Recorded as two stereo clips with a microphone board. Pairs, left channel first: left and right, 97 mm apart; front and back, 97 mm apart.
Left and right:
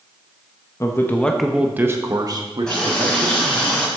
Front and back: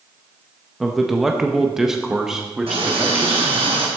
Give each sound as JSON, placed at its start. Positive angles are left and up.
{"t": 0.8, "sound": "a man speaking", "azimuth_deg": 90, "distance_m": 1.1}
{"t": 2.7, "sound": "a running tap", "azimuth_deg": 170, "distance_m": 3.5}